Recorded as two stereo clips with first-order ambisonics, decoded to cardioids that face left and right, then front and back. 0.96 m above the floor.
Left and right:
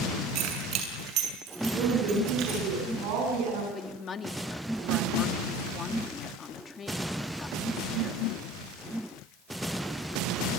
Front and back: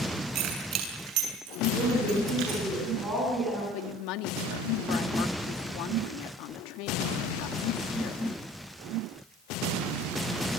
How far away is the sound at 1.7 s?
About 9.5 m.